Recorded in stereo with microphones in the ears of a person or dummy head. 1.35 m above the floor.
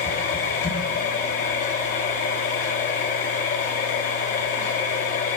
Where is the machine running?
40° left (ahead or behind), 0.9 m.